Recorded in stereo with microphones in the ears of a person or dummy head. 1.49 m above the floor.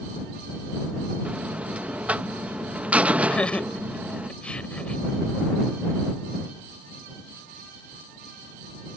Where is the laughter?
5° left (ahead or behind).